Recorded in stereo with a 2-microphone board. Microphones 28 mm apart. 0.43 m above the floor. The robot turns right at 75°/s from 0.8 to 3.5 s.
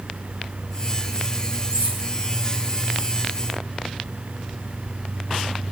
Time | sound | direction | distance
1.7 | cutlery clinking | 75° right (ahead or behind) | 4 m